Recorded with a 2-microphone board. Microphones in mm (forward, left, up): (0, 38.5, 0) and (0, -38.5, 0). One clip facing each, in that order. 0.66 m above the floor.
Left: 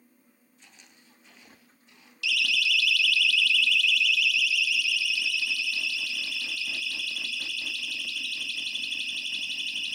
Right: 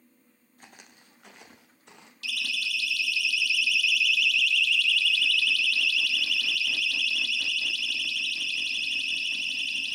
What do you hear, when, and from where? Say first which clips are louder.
0.6 s footsteps: right 6 dB; 50° right (ahead or behind), 2.5 m; by 2.1 s 75° right (ahead or behind), 3 m
2.2 s a siren: left 6 dB; 40° right (ahead or behind), 2 m; by 10.0 s 50° left (ahead or behind), 5.5 m